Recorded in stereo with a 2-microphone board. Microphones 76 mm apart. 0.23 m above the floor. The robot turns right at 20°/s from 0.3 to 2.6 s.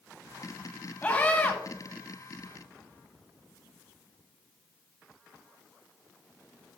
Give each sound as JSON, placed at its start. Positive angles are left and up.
{"t": 1.0, "sound": "a scream", "side_deg": 20, "distance_m": 1.6}